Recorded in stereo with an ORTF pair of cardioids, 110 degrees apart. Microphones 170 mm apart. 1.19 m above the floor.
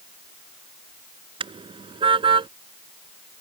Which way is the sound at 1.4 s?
30° right.